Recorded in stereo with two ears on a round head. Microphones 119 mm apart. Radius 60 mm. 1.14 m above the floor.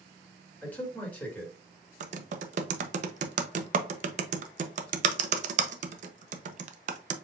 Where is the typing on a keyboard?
60° right (ahead or behind), 0.6 m.